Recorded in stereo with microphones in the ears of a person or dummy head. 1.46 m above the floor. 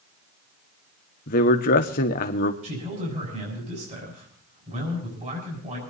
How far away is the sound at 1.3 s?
About 1.1 m.